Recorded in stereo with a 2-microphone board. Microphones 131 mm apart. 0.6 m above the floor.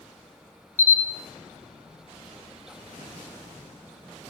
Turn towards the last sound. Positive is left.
turn(degrees=65)  # may be behind; listen again after turning